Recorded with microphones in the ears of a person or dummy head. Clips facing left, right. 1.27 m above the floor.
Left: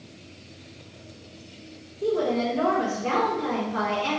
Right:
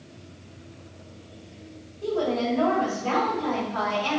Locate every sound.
2.0 s a woman speaking: 35° left (ahead or behind), 4 m